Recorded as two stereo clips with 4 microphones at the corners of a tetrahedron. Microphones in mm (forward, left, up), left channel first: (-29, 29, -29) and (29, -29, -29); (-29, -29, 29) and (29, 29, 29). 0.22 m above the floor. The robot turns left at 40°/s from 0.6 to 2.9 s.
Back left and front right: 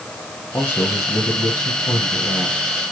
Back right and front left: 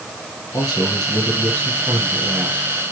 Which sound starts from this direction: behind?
A man speaking, at 0.5 s.